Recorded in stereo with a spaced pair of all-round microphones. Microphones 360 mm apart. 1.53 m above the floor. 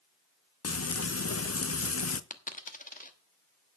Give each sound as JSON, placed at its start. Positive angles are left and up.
{"t": 0.6, "sound": "frying", "side_deg": 40, "distance_m": 0.6}
{"t": 2.3, "sound": "a dropped coin", "side_deg": 20, "distance_m": 1.0}